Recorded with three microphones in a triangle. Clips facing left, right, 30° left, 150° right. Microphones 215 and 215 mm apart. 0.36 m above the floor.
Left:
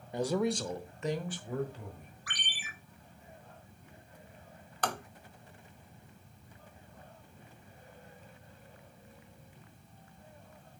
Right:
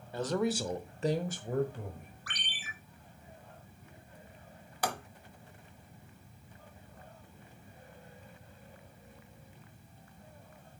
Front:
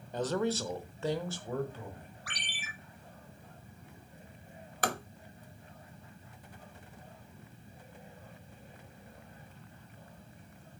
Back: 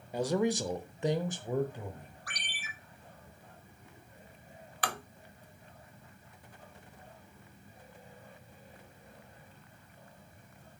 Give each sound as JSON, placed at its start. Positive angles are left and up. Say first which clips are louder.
{"t": 0.1, "sound": "a man speaking", "louder": "left 1 dB, back 2 dB", "azimuth_deg": 140, "distance_m": 0.9}
{"t": 2.3, "sound": "a ringtone", "louder": "even, front 1 dB", "azimuth_deg": 15, "distance_m": 5.0}
{"t": 4.8, "sound": "tapping", "louder": "even, front 4 dB", "azimuth_deg": -10, "distance_m": 0.8}